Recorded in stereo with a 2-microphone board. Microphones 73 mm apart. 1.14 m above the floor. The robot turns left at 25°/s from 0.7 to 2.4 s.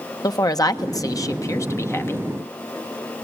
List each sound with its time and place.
0.2 s a woman speaking: 70° left, 1.3 m; by 2.3 s 30° left, 1.3 m